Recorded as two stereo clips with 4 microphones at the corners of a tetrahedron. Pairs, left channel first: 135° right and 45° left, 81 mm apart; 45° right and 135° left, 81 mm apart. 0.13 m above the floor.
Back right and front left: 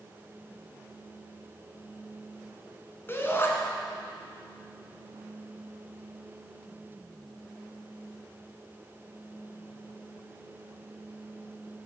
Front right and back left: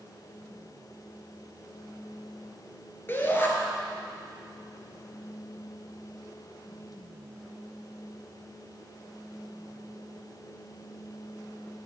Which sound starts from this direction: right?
A shout, at 3.1 s.